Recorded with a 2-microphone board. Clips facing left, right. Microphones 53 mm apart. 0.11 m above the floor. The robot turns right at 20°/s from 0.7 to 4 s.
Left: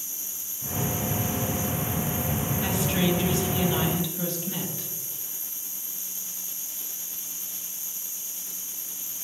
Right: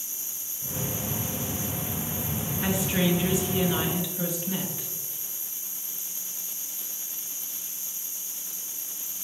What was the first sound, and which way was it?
A woman speaking, 20° right (ahead or behind).